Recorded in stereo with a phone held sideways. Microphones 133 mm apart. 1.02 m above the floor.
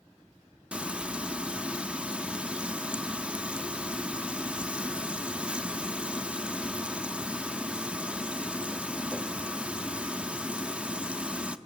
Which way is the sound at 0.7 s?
5° right (ahead or behind).